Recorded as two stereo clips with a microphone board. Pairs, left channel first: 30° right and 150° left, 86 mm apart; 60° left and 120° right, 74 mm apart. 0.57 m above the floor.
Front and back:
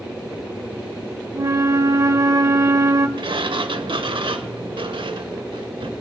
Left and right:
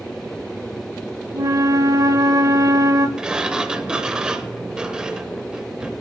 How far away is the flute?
About 0.6 m.